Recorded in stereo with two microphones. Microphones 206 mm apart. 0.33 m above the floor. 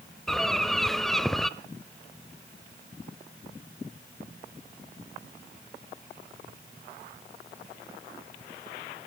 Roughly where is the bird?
Centre.